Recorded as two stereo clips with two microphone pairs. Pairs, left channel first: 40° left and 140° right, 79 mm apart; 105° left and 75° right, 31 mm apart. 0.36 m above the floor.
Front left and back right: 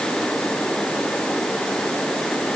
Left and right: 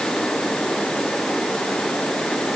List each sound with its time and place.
Only background noise.